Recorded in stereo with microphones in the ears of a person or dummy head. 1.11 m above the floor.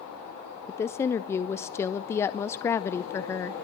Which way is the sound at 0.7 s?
10° left (ahead or behind).